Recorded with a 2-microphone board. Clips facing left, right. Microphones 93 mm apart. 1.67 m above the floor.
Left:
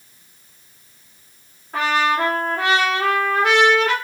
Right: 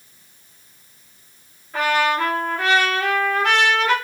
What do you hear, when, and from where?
1.7 s a trumpet: 65° left (ahead or behind), 2 m